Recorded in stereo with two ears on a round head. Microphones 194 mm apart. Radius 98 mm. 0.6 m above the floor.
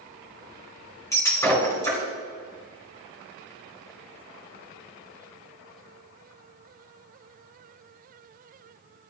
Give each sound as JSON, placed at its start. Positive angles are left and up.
{"t": 1.1, "sound": "breaking glass", "side_deg": 15, "distance_m": 3.0}